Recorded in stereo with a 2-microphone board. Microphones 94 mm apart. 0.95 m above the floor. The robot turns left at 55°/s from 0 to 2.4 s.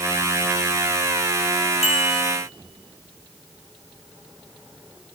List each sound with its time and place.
1.8 s a bicycle bell: 75° left (ahead or behind), 5.5 m; by 2.2 s 80° left, 5.5 m